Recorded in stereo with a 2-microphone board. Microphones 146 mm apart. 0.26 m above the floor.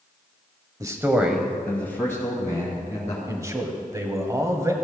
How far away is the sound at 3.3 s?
About 1.3 m.